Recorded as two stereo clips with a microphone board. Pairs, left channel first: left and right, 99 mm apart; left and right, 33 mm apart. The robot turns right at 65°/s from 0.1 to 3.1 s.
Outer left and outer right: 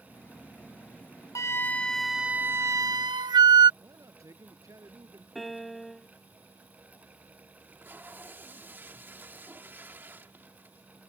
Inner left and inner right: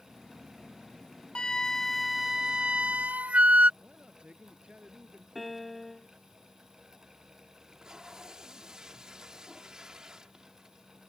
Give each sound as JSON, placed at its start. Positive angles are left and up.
{"t": 1.4, "sound": "a flute", "azimuth_deg": 135}
{"t": 3.8, "sound": "a man speaking", "side_deg": -35}
{"t": 5.3, "sound": "a piano", "side_deg": 0}
{"t": 7.6, "sound": "tape being pulled", "side_deg": -20}